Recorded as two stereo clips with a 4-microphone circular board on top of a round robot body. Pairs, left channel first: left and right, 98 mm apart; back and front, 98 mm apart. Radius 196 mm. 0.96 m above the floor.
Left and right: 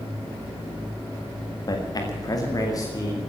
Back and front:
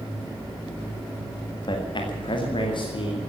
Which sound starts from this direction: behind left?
A man speaking, at 1.7 s.